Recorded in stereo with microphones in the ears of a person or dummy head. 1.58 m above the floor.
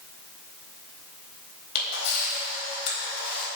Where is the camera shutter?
55° left (ahead or behind), 4 m.